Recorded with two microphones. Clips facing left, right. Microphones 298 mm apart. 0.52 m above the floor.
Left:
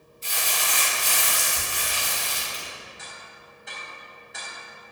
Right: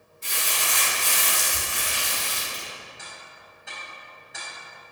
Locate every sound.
0.2 s crumpling: 60° right (ahead or behind), 3 m
3.0 s ticking: centre (ahead or behind), 3 m